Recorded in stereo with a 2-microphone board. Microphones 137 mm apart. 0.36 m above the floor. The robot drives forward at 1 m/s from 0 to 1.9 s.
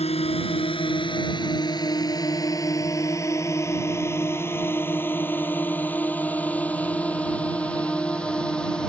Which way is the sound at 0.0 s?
50° left (ahead or behind).